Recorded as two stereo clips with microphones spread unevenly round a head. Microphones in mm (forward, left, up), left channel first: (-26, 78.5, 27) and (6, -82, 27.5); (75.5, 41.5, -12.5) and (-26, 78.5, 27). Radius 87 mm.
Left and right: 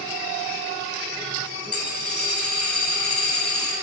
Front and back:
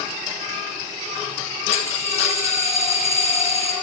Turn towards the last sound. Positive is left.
turn(degrees=15)